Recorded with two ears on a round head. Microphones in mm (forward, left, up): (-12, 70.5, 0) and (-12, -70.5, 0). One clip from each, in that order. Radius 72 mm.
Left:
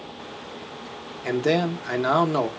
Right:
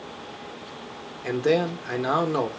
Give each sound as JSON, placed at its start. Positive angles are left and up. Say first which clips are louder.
{"t": 1.2, "sound": "a man speaking", "louder": "even", "side_deg": 15, "distance_m": 0.6}